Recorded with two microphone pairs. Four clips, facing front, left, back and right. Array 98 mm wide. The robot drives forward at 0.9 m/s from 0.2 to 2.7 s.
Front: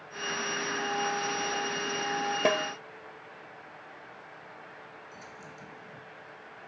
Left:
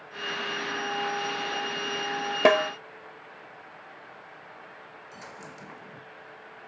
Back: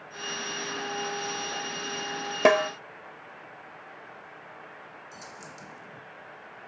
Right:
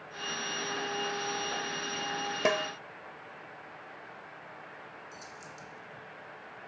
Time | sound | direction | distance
2.5 | a snare drum | 135° left | ?
5.1 | a dropped coin | 110° left | ?